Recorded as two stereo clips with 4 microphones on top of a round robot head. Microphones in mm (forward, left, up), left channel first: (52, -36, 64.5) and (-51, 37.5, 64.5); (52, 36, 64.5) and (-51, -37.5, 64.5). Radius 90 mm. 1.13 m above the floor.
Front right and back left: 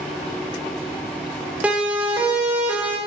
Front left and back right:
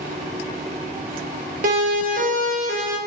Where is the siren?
135° right, 7.5 m.